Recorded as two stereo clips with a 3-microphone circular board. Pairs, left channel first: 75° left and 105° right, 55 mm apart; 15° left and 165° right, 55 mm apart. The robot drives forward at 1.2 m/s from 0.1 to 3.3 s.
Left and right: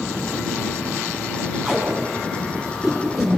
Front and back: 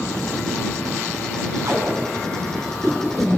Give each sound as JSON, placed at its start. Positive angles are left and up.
{"t": 1.6, "sound": "tape being pulled", "azimuth_deg": 170, "distance_m": 4.0}